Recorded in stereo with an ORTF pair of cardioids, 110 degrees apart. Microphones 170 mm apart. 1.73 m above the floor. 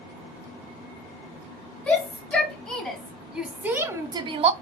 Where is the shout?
10° left, 1.6 m; by 4.5 s 40° right, 0.5 m.